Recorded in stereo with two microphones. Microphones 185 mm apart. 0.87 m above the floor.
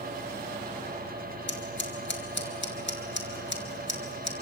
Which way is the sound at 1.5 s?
80° left.